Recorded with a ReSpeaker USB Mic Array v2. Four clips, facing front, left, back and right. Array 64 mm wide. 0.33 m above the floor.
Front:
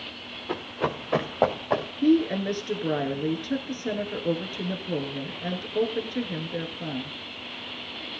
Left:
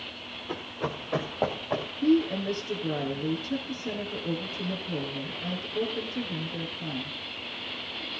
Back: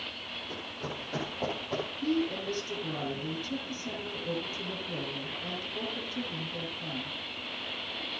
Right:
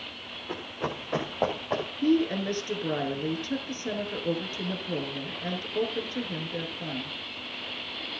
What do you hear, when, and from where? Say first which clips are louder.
0.5 s running footsteps: even, front 12 dB; straight ahead, 4.5 m; by 1.9 s 5° right, 6 m
2.0 s a woman speaking: left 1 dB, front 9 dB; 20° right, 5 m